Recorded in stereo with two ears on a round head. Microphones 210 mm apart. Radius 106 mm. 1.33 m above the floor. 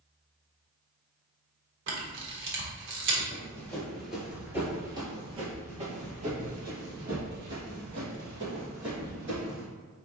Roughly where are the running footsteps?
Centre.